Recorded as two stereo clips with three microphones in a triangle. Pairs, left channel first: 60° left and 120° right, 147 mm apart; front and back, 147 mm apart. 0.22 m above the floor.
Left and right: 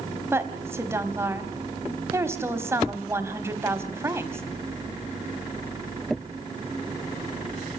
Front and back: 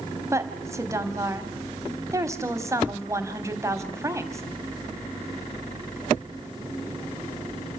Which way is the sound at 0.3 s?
155° right.